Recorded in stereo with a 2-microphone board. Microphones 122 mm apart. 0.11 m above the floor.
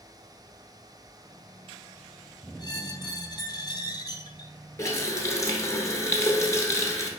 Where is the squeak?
35° left (ahead or behind), 0.5 m.